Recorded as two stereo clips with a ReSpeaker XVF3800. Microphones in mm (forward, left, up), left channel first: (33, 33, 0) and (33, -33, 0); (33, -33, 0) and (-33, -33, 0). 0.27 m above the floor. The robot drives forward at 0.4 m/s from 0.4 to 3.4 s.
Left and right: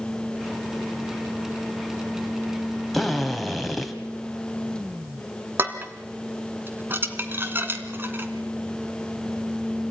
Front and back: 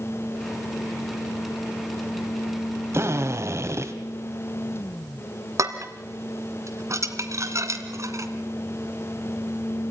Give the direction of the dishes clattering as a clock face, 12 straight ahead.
5 o'clock.